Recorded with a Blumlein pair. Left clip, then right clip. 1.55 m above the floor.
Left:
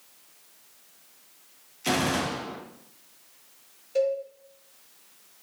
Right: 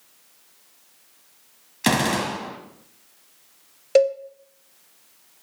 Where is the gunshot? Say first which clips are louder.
Right 4 dB; 40° right, 1.7 m.